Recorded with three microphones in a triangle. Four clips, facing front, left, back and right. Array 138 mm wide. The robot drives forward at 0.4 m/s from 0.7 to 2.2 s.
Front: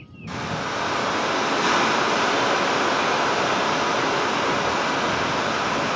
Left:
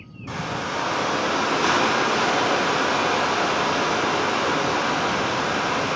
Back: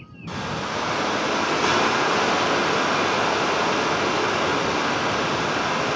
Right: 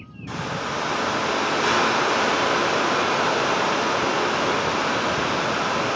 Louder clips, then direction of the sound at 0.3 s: Even, even; 115° left.